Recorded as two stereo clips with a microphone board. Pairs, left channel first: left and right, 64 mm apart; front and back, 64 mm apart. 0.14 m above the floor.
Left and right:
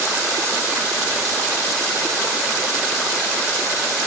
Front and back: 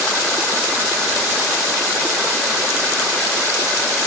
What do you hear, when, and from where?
Only background noise.